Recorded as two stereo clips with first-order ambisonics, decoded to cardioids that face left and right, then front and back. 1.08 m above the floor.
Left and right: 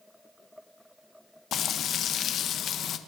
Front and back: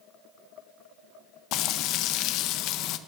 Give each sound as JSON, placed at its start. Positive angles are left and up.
{"t": 1.5, "sound": "frying", "azimuth_deg": 35, "distance_m": 0.5}